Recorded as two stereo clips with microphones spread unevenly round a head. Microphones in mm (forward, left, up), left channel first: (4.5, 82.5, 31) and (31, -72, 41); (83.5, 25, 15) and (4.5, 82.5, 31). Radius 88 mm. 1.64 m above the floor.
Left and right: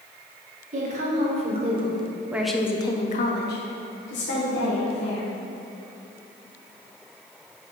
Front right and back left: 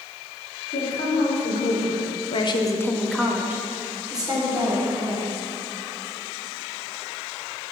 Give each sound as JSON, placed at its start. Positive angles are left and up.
{"t": 0.7, "sound": "a woman speaking", "azimuth_deg": -40, "distance_m": 2.0}